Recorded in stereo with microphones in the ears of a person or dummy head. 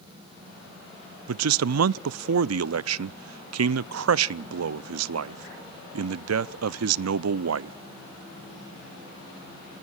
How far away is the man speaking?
About 0.6 m.